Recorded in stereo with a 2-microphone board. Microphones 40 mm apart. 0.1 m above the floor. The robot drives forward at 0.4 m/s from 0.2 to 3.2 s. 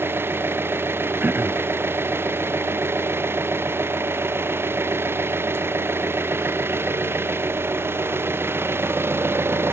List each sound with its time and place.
0.0 s an engine running: 70° right (ahead or behind); by 9.7 s 75° right (ahead or behind)
1.2 s throat clearing: 50° right (ahead or behind)